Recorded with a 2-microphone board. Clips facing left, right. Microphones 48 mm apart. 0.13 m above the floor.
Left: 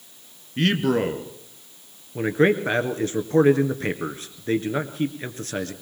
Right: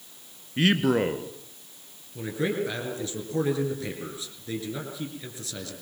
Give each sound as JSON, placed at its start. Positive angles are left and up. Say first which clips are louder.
{"t": 0.6, "sound": "a man speaking", "louder": "left 1 dB", "side_deg": -5, "distance_m": 1.5}
{"t": 2.1, "sound": "a man speaking", "louder": "left 9 dB", "side_deg": 50, "distance_m": 2.0}